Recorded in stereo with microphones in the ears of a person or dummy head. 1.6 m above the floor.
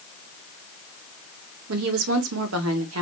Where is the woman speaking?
85° right, 1.1 m.